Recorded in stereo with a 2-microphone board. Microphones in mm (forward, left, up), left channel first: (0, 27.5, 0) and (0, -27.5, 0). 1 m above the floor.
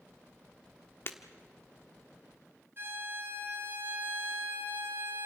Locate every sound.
1.1 s breaking glass: 45° left (ahead or behind), 1.3 m
2.8 s a violin: 45° right (ahead or behind), 4 m